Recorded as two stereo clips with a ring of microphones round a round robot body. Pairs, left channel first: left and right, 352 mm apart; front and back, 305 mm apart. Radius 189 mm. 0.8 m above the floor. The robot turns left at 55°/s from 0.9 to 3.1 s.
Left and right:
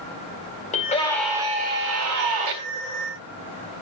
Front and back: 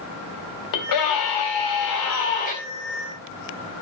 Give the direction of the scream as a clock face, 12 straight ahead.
11 o'clock.